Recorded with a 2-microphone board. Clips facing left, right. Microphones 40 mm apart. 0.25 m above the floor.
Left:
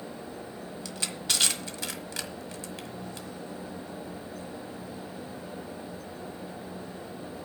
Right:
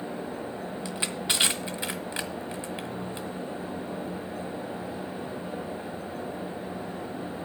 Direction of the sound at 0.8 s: 20° right (ahead or behind).